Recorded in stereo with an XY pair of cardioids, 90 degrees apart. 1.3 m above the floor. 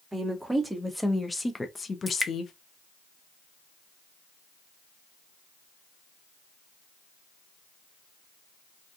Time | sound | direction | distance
0.1 | a woman speaking | 15° right | 1.2 m
2.1 | dripping | 15° left | 0.6 m